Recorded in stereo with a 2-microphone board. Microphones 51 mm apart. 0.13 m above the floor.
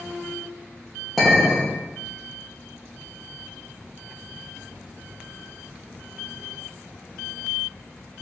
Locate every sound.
1.2 s a clink: 5° right (ahead or behind), 1.9 m